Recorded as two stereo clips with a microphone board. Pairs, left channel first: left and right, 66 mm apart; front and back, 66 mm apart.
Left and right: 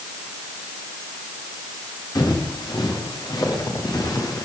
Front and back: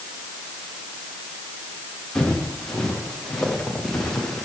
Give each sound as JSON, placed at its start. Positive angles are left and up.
{"t": 2.1, "sound": "footsteps", "azimuth_deg": 80, "distance_m": 8.5}